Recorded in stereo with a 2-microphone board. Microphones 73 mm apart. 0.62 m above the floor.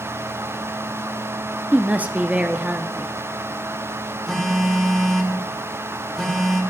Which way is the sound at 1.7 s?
20° right (ahead or behind).